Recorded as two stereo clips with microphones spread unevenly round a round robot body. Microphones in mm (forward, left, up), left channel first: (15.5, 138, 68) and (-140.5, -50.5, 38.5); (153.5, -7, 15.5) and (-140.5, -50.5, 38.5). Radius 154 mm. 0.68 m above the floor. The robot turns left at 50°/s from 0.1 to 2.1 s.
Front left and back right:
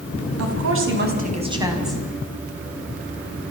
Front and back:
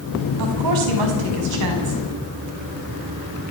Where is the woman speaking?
145° right, 5.5 m; by 2.0 s 140° left, 5.5 m.